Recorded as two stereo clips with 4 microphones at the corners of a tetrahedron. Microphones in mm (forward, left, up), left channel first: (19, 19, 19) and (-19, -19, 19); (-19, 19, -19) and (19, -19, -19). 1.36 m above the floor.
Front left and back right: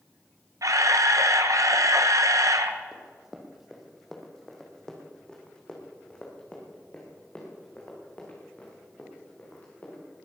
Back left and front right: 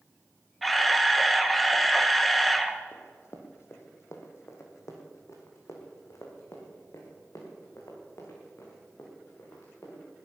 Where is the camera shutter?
135° right, 1.1 m.